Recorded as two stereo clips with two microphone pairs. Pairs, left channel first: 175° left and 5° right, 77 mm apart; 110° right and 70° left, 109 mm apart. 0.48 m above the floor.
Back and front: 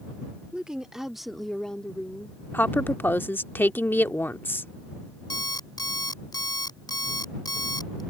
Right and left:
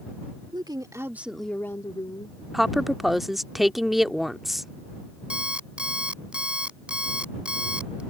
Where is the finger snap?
No finger snap in this recording.